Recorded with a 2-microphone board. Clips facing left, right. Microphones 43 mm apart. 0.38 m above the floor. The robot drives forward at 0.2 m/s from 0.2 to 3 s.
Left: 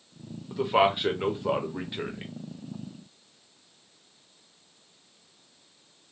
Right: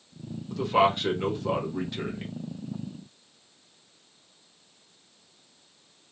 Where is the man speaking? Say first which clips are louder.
Even; 15° left (ahead or behind), 0.9 m.